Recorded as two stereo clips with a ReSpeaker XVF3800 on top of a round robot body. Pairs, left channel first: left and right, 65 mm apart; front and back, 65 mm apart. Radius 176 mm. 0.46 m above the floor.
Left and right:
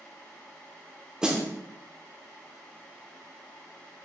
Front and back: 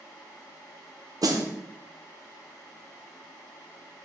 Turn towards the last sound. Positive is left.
turn(degrees=-170)